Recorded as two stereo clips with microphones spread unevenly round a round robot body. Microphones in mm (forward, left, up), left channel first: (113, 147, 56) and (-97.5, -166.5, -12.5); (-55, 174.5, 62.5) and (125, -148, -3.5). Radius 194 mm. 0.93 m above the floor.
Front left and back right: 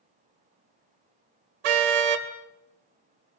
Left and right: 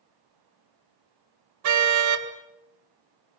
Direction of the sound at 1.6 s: 115° right.